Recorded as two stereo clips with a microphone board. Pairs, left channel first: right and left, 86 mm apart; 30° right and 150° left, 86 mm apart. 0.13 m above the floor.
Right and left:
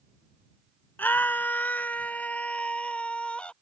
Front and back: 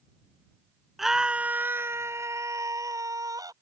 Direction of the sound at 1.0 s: 125° right.